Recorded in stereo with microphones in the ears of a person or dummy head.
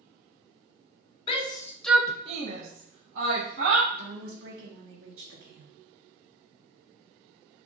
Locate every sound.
1.3 s a shout: 35° left (ahead or behind), 0.9 m; by 3.8 s 80° right, 1.6 m
3.9 s a woman speaking: 65° right (ahead or behind), 1.3 m